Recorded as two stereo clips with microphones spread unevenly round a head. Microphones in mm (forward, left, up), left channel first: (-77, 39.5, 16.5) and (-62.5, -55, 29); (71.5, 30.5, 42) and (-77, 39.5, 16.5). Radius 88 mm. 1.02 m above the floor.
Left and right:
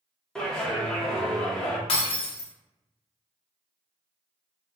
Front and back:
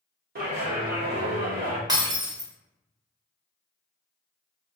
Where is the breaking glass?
110° left, 0.8 m.